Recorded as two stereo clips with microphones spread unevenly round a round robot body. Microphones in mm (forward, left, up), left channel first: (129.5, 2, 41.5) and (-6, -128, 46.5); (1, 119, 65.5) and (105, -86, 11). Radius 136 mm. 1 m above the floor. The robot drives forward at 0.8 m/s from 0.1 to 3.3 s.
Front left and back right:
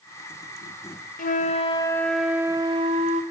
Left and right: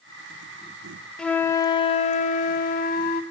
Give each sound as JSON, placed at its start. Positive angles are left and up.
{"t": 1.2, "sound": "a flute", "azimuth_deg": 50, "distance_m": 0.9}